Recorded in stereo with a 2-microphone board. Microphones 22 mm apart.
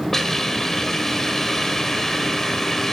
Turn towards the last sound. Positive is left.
turn(degrees=20)  # may be behind; listen again after turning